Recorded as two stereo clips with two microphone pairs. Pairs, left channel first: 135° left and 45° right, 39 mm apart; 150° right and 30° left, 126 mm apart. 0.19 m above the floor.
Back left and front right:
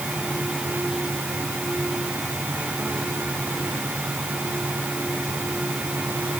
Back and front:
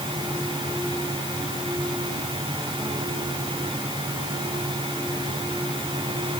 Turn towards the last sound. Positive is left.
No sound to turn to.